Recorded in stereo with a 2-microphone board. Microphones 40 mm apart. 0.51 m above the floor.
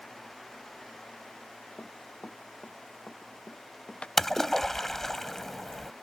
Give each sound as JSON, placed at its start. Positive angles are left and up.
{"t": 1.8, "sound": "running footsteps", "side_deg": 30}
{"t": 4.2, "sound": "a splash", "side_deg": 5}